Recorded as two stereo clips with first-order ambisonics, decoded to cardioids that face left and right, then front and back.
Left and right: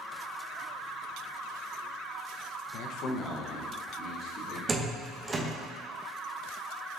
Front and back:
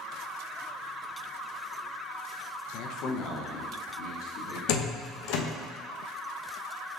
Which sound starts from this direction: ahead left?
A man speaking, at 2.7 s.